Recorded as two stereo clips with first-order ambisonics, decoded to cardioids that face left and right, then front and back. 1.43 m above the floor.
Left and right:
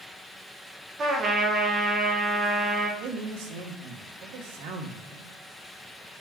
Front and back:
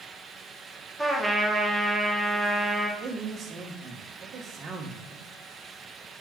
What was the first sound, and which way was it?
A trumpet, 85° right.